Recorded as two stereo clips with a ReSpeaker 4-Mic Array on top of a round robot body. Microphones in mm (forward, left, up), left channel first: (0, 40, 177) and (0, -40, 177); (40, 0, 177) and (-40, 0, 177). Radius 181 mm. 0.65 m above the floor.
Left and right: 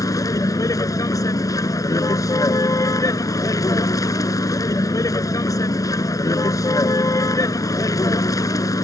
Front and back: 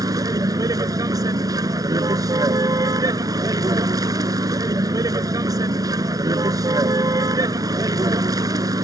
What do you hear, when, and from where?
0.0 s a vehicle: 135° left